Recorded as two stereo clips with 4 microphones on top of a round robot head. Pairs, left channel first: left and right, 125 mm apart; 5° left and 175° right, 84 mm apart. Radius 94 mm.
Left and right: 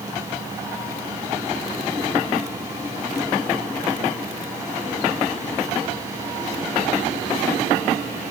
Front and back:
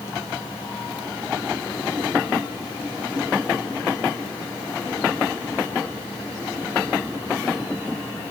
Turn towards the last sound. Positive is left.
No sound to turn to.